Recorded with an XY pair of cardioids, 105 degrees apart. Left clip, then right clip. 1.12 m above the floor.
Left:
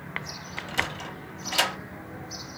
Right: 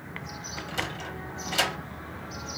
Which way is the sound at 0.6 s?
25° left.